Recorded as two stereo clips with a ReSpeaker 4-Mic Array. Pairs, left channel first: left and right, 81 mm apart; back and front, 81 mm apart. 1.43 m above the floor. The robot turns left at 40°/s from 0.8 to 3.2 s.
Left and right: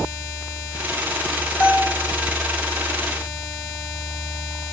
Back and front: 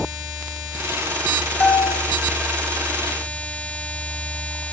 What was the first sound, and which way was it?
A bell, 125° left.